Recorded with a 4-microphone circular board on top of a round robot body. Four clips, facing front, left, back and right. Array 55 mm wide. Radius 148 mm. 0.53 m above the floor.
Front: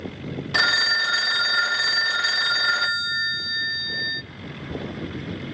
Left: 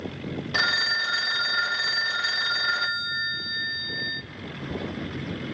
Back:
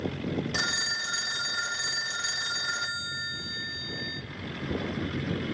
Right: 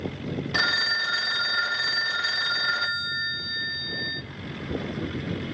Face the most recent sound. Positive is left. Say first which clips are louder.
# left 1 dB, front 15 dB
turn(degrees=5)